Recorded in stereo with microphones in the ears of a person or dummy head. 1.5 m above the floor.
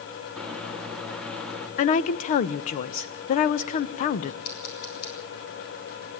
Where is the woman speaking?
35° left (ahead or behind), 0.8 m.